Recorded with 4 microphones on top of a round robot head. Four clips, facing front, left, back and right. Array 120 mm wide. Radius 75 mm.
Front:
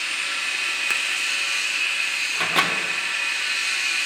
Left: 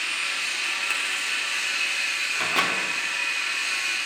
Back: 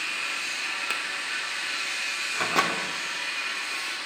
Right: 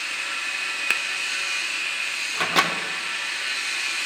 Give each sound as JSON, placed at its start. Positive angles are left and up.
{"t": 0.9, "sound": "a finger snap", "azimuth_deg": -90, "distance_m": 0.8}
{"t": 2.3, "sound": "a microwave", "azimuth_deg": -95, "distance_m": 0.8}